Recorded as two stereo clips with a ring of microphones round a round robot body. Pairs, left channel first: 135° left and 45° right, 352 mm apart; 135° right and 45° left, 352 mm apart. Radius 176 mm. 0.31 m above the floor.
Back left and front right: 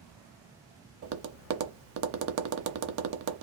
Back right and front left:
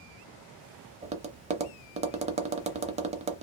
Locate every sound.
1.0 s tapping: 20° right, 0.6 m